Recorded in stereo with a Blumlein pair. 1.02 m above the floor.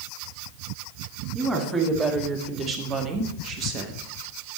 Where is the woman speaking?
15° right, 2.5 m; by 4.0 s 40° right, 1.2 m.